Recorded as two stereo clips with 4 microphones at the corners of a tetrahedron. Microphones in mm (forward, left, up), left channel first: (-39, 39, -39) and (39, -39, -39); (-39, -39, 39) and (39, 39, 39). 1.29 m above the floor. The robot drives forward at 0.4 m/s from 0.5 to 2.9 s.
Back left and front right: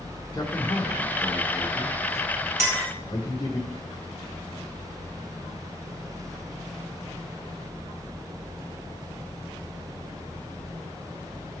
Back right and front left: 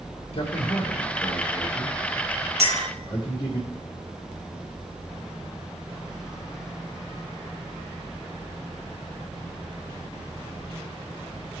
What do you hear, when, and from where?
0.3 s a man speaking: 160° right, 1.2 m; by 3.6 s 170° right, 2 m
2.6 s a clink: 20° left, 1.2 m; by 2.9 s 25° left, 1.1 m